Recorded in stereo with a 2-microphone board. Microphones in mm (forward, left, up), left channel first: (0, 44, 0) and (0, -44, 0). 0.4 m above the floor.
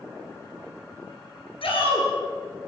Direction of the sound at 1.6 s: 80° left.